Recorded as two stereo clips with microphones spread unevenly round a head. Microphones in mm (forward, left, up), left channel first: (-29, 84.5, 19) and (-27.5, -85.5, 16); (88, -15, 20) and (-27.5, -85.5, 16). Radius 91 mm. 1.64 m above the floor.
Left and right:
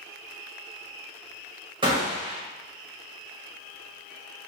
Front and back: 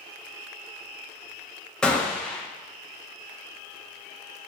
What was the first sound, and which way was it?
A gunshot, 45° right.